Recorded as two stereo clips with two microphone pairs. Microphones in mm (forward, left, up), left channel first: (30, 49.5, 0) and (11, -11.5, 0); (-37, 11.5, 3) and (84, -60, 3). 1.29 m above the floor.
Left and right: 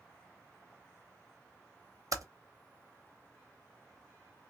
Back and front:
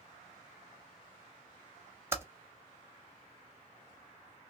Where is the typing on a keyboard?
95° right, 0.6 m.